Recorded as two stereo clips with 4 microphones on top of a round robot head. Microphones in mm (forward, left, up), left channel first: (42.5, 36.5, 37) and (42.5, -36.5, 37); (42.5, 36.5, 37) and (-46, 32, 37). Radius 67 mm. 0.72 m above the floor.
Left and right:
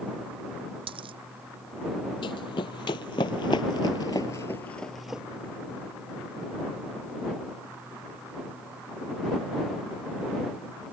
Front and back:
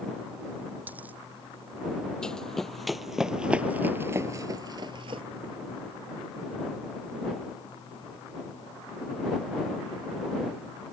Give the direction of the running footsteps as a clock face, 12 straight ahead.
9 o'clock.